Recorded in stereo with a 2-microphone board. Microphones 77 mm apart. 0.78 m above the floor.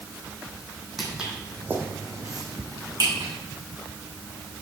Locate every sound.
1.0 s footsteps: centre (ahead or behind), 2 m; by 3.3 s 70° right (ahead or behind), 3.5 m